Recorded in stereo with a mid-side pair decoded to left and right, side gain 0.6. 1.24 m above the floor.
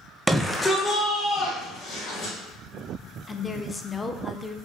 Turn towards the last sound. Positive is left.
turn(degrees=15)